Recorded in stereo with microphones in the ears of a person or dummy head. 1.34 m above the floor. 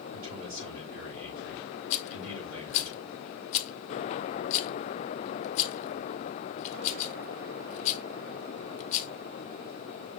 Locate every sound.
0.1 s a man speaking: 80° right, 4 m
1.9 s a rattle: 35° left (ahead or behind), 0.7 m